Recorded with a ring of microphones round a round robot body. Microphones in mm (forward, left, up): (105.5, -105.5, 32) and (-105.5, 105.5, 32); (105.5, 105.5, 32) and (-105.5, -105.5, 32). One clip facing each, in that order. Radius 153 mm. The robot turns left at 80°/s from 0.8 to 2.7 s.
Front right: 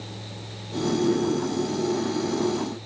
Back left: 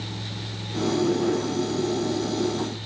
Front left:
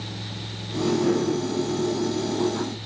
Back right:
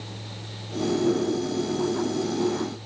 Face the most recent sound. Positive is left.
No sound to turn to.